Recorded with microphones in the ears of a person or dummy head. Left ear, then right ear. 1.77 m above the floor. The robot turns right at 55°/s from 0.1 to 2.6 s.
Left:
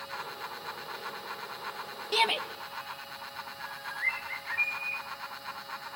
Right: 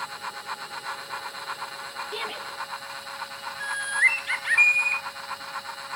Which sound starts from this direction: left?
A shout, at 2.1 s.